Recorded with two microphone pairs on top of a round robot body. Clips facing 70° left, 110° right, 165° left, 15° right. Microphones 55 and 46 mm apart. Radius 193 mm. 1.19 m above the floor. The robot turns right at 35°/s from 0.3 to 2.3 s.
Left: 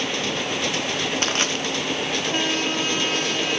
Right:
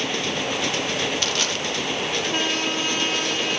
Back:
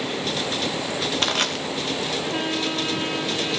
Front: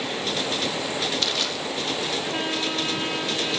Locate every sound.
1.2 s crushing: 115° left, 2.5 m; by 1.6 s 130° left, 2.5 m